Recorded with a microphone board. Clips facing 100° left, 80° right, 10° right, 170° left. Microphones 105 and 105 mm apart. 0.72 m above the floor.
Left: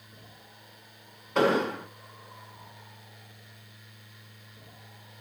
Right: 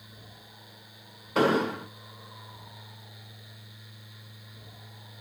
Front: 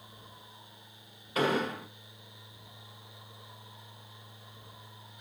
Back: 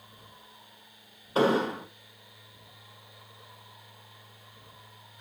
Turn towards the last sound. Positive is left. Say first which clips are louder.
# even, back 5 dB
turn(degrees=-165)